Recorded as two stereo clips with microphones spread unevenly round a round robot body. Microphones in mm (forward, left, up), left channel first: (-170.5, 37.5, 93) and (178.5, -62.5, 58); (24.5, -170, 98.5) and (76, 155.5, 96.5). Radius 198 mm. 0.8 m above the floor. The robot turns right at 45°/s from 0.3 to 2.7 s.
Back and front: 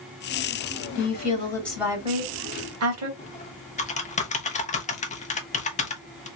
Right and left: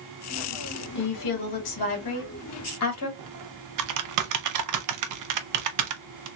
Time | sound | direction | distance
0.9 | a woman speaking | 140° right | 2 m
3.2 | typing on a keyboard | 90° left | 0.7 m